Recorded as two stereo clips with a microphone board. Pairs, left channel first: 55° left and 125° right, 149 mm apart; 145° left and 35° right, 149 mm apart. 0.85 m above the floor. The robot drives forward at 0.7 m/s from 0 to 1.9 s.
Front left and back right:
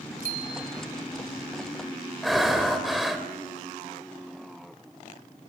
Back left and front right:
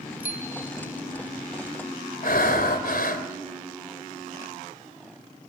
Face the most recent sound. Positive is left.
turn(degrees=145)